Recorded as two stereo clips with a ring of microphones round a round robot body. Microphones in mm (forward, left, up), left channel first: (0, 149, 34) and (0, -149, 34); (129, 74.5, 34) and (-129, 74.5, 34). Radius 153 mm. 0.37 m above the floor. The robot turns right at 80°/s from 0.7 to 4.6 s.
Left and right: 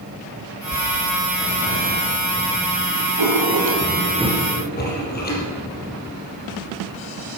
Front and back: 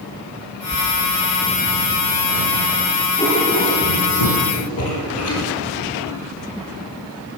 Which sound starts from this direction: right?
Writing, at 3.2 s.